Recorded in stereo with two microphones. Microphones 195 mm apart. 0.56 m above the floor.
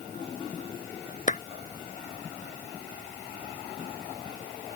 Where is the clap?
35° left (ahead or behind).